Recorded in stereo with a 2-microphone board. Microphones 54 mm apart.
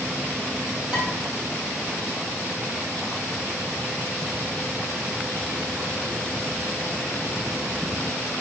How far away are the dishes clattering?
About 2.5 m.